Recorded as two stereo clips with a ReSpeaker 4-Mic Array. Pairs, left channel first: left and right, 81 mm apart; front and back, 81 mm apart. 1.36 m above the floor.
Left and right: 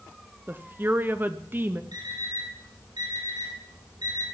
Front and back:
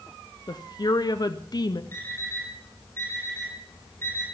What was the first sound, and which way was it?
A woman speaking, 30° right.